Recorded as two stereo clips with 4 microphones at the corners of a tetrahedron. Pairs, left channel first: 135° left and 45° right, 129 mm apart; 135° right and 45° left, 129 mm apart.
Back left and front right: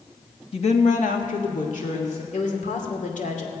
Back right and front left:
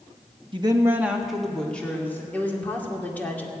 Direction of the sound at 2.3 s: 150° left.